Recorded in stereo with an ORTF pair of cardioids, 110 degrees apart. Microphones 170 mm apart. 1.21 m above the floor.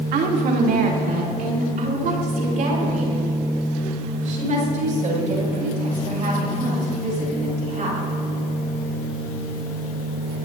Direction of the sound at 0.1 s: 60° right.